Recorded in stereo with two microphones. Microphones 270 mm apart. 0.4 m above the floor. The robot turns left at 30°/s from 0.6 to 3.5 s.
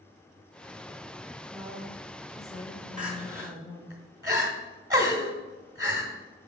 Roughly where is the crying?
Centre.